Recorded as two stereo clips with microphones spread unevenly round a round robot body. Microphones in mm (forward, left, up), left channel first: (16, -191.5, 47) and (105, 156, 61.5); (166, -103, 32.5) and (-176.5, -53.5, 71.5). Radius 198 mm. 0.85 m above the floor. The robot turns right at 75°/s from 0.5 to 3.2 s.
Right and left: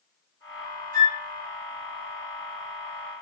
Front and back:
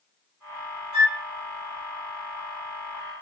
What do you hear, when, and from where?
0.9 s a flute: 105° left, 0.9 m; by 1.2 s 125° left, 0.9 m